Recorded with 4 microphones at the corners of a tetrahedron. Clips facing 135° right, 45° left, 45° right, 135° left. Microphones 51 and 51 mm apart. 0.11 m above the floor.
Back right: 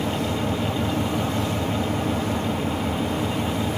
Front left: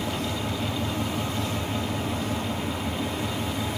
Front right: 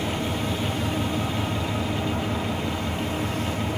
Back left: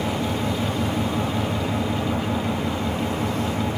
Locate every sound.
0.0 s an engine running: 160° right, 1.6 m